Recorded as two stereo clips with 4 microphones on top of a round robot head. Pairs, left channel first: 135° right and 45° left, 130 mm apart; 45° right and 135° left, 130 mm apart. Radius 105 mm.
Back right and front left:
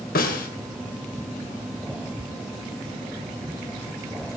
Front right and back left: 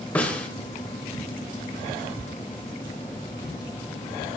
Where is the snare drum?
130° right, 3 m.